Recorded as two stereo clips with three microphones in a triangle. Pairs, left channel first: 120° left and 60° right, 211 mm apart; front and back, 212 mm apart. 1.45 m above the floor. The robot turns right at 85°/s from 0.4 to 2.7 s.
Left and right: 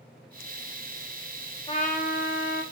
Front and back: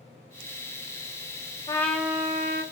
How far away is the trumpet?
About 0.6 m.